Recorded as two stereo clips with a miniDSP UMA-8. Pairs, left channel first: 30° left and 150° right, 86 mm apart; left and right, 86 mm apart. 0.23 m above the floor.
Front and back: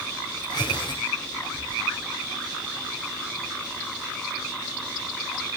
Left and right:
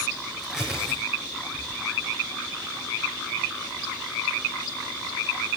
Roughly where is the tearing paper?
Ahead.